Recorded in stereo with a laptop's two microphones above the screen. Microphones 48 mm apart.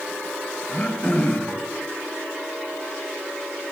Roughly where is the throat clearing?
Left.